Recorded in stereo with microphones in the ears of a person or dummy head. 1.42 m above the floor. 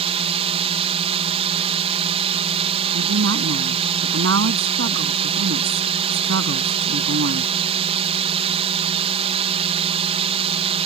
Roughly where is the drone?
Right.